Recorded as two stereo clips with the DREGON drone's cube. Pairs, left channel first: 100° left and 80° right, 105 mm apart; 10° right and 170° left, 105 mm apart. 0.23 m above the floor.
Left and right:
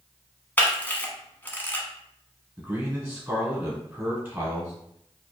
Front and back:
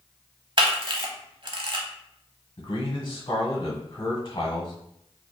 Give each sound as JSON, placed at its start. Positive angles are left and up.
{"t": 0.6, "sound": "a camera shutter", "azimuth_deg": 165, "distance_m": 0.7}
{"t": 2.6, "sound": "a man speaking", "azimuth_deg": -30, "distance_m": 1.4}